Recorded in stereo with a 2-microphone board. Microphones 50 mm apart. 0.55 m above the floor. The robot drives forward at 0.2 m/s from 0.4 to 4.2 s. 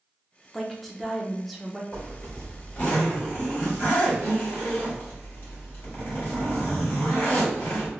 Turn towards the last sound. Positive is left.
turn(degrees=35)  # may be behind; listen again after turning